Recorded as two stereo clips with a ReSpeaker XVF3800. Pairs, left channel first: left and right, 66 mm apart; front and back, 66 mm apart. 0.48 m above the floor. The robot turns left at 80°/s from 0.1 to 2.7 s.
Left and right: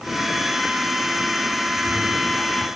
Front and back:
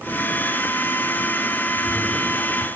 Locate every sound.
1.7 s a cat meowing: 65° left, 2.5 m; by 2.7 s 15° right, 2.5 m